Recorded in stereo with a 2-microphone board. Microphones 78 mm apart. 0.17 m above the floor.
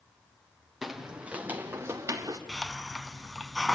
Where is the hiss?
Centre (ahead or behind), 1.1 m.